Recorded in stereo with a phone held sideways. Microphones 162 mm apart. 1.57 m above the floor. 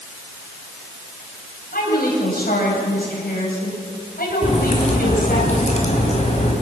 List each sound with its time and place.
1.7 s a woman speaking: 70° left (ahead or behind), 8 m
4.4 s a crack: 45° left (ahead or behind), 5 m